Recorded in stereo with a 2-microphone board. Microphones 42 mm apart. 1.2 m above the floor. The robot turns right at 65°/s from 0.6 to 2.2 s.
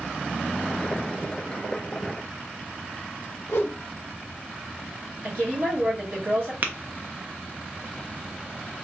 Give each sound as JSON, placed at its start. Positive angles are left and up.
{"t": 3.5, "sound": "a whoosh", "side_deg": 75, "distance_m": 0.6}
{"t": 5.2, "sound": "a woman speaking", "side_deg": -65, "distance_m": 1.9}
{"t": 6.6, "sound": "tapping", "side_deg": -40, "distance_m": 0.5}